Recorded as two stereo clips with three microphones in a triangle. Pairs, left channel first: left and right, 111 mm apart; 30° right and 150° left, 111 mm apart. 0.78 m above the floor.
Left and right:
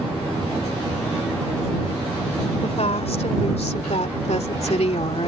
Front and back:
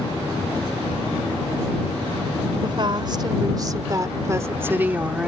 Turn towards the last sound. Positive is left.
turn(degrees=70)